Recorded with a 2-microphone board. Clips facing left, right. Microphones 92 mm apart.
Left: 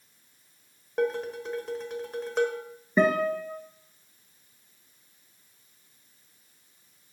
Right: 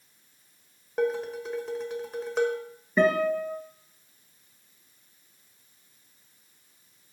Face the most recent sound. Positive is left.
turn(degrees=15)  # may be behind; listen again after turning